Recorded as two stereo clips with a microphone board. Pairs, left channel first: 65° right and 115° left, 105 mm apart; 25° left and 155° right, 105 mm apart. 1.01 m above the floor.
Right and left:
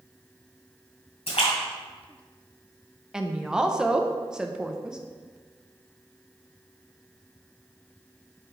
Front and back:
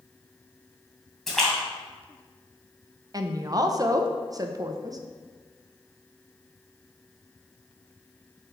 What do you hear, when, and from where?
1.3 s a splash: 65° right, 1.9 m
3.1 s a woman speaking: 170° right, 0.6 m